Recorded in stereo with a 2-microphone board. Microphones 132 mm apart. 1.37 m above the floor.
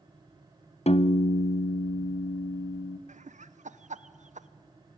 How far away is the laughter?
About 0.9 m.